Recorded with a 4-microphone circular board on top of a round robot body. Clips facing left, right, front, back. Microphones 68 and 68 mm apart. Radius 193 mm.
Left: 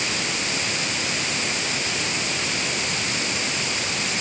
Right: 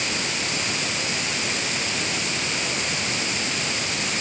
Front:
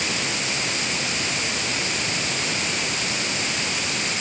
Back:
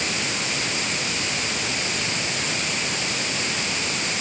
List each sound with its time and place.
Only background noise.